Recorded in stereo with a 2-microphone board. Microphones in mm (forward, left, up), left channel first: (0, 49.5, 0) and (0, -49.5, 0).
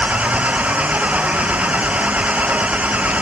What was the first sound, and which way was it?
An engine running, 15° right (ahead or behind).